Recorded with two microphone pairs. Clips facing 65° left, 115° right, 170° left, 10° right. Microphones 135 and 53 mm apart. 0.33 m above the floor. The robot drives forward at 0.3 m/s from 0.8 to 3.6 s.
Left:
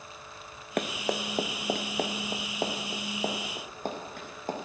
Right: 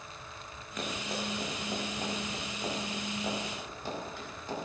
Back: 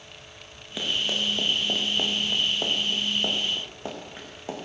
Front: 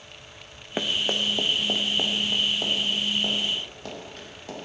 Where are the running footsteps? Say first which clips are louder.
Left 6 dB, front 2 dB; 40° left, 1.8 m; by 4.6 s 105° left, 4.5 m.